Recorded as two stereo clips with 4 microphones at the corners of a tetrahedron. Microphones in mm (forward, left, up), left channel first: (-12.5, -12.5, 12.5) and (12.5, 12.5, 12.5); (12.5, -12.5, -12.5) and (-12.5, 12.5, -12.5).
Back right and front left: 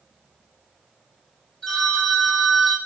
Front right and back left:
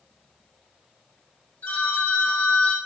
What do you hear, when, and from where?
1.6 s a phone ringing: 60° right, 1.9 m